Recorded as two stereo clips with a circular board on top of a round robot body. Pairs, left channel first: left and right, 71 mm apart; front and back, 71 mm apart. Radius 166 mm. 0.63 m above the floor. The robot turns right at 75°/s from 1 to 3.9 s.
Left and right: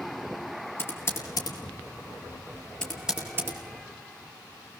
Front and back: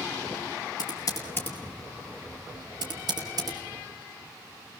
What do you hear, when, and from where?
0.8 s typing on a keyboard: 35° left, 5.5 m; by 3.6 s 135° right, 5.5 m